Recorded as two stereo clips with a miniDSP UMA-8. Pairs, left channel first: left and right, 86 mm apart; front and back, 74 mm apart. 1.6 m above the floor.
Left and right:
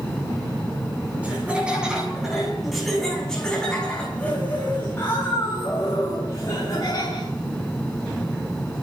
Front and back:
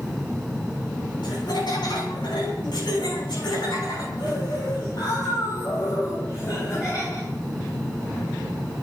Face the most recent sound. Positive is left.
turn(degrees=45)